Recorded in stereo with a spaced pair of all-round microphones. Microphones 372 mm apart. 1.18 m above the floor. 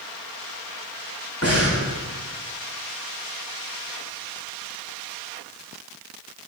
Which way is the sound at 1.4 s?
40° left (ahead or behind).